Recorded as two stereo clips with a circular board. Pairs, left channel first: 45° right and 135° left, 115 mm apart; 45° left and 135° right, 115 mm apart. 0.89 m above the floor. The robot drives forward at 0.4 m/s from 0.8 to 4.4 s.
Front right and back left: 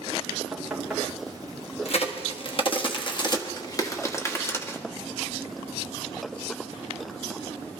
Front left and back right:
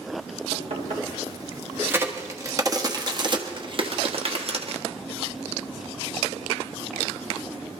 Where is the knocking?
135° right, 2.5 m; by 1.2 s 140° right, 2.5 m.